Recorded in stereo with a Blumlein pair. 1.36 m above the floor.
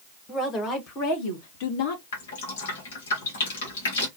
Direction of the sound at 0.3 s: 20° left.